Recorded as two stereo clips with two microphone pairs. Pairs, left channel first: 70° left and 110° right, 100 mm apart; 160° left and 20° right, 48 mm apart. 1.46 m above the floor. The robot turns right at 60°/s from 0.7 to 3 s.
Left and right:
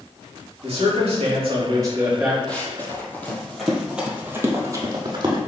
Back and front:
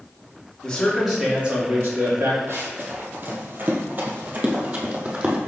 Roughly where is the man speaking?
Behind right.